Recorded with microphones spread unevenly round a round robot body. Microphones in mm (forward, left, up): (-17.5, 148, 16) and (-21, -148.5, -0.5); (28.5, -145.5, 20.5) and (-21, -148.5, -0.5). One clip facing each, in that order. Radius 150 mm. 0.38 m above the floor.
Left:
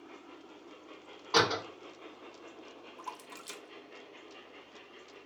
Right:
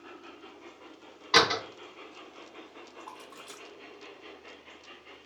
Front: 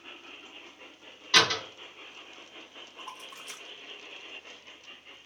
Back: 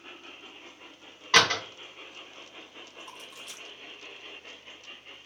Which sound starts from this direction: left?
A splash, at 3.0 s.